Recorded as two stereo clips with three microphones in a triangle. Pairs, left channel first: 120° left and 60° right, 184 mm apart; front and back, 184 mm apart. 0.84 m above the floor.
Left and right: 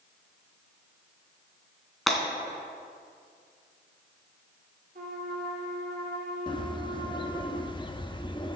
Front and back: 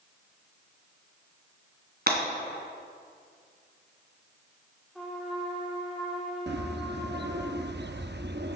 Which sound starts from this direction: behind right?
Breaking glass, at 2.1 s.